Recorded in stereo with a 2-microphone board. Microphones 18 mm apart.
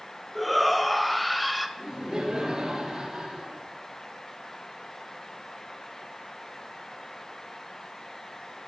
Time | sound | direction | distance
0.3 | a shout | centre (ahead or behind) | 2 m
1.8 | laughter | 40° right (ahead or behind) | 6.5 m